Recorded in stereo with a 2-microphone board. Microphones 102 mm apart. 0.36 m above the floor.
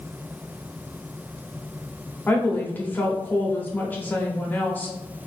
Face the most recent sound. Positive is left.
turn(degrees=20)  # may be behind; listen again after turning